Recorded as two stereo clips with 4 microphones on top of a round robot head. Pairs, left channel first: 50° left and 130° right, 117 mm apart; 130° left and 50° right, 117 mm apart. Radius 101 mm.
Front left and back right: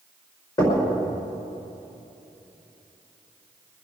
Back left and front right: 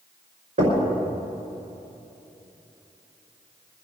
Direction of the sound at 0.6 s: 10° right.